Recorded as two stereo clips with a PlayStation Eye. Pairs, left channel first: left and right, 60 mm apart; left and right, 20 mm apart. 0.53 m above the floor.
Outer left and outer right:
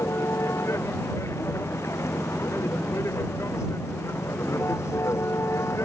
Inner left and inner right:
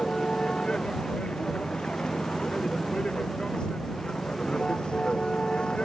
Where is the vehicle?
50° left (ahead or behind).